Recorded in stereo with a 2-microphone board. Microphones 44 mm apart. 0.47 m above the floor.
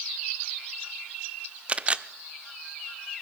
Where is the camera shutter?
30° right (ahead or behind), 0.6 m.